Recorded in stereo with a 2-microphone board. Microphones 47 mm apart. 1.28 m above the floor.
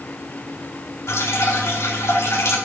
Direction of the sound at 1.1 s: 75° left (ahead or behind).